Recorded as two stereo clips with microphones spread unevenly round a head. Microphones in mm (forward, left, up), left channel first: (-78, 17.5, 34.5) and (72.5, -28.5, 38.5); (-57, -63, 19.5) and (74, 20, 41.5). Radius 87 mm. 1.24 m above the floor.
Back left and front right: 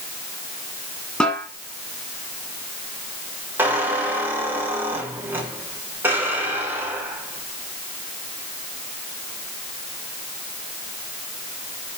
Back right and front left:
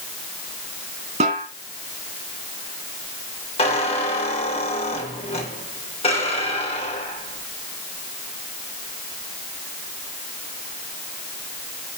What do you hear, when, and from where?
1.2 s a snare drum: 80° left, 2.5 m
3.6 s a squeak: 95° right, 3 m